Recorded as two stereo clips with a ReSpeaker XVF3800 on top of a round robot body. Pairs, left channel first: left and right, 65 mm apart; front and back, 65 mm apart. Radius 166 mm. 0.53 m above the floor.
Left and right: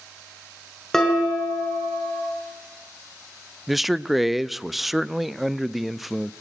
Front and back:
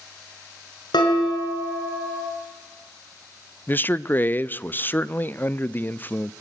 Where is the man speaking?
5° right, 0.6 m.